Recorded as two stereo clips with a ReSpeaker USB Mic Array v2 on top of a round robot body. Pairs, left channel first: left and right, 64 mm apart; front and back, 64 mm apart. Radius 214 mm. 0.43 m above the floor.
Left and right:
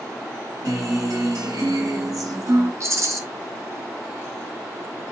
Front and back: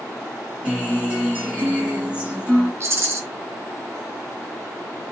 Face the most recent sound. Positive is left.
turn(degrees=-130)